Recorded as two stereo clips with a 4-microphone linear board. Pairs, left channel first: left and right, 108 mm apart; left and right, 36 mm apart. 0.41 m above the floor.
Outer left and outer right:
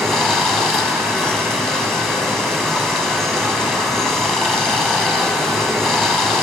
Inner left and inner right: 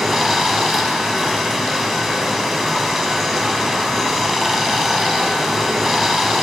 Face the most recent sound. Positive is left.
turn(degrees=5)  # may be behind; listen again after turning